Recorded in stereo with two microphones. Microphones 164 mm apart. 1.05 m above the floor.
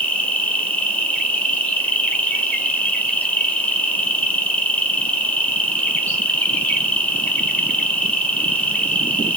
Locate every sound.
0.0 s an insect: 10° left (ahead or behind), 0.7 m